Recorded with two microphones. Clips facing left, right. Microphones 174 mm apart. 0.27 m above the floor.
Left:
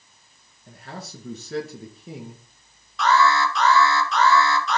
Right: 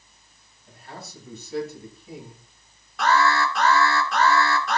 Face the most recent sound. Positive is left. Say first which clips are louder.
# left 1 dB
turn(degrees=-50)  # may be behind; listen again after turning